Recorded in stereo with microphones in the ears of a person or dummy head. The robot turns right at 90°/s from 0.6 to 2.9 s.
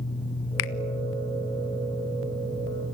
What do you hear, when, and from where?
0.6 s a finger snap: 70° left (ahead or behind), 0.8 m; by 0.7 s 65° left (ahead or behind), 0.8 m